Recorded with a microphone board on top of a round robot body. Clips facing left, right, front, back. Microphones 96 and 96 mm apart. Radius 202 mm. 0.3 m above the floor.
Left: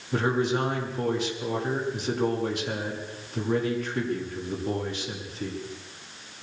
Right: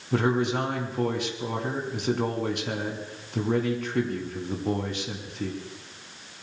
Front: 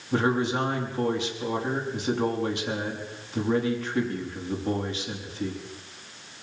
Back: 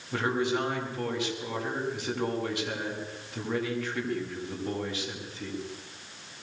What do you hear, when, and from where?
0.1 s a man speaking: 65° right, 6 m